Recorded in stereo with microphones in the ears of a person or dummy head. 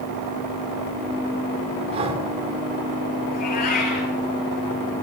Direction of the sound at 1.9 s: 35° right (ahead or behind).